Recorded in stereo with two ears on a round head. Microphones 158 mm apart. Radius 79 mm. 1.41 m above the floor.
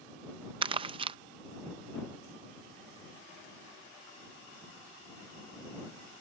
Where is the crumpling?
30° right (ahead or behind).